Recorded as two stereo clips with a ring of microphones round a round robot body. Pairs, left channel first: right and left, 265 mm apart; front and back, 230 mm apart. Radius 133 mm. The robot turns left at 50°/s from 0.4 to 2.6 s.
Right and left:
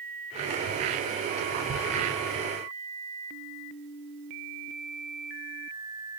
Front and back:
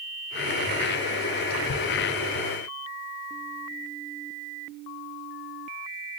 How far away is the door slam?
I don't hear a door slam.